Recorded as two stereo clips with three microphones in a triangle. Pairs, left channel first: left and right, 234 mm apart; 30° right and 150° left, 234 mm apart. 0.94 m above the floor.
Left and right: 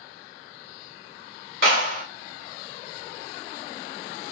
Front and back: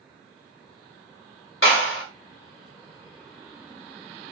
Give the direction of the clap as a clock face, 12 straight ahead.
2 o'clock.